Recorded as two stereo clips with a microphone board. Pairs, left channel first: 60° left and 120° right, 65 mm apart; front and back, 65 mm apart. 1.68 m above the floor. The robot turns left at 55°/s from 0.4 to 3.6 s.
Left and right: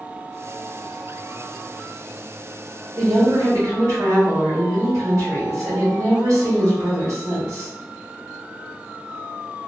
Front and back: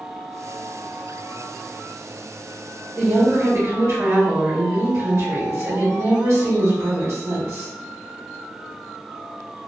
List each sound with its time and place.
3.0 s a woman speaking: 110° right, 1.5 m; by 7.7 s 145° right, 1.5 m